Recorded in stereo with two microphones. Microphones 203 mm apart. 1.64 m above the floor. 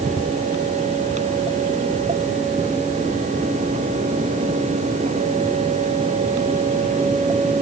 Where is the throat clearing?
No throat clearing in this recording.